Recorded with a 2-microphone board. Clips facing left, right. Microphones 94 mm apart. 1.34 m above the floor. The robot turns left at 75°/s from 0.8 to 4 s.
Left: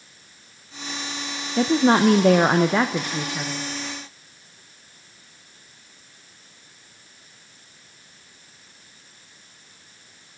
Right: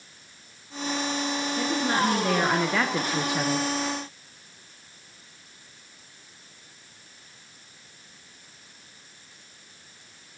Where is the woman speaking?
115° left, 0.7 m; by 3.7 s 45° right, 0.7 m.